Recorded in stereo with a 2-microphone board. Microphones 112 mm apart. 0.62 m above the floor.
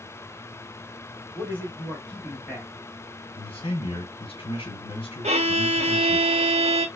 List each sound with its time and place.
1.4 s a man speaking: 15° left (ahead or behind), 1.0 m
3.4 s a man speaking: 55° left (ahead or behind), 1.4 m
5.2 s a violin: 70° right (ahead or behind), 0.6 m